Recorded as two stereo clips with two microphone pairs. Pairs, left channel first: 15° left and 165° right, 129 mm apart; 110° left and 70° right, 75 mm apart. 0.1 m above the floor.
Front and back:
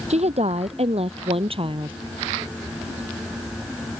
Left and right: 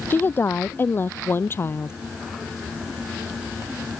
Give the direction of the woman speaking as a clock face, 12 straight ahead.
6 o'clock.